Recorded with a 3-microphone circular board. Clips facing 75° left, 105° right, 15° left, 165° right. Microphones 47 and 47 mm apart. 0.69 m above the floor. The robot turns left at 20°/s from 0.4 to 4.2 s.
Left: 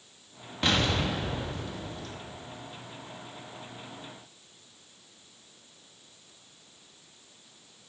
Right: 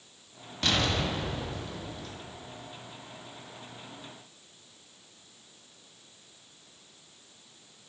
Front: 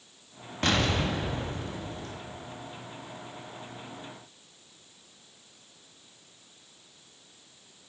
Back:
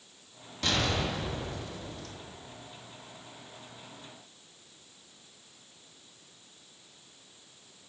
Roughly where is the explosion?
Ahead.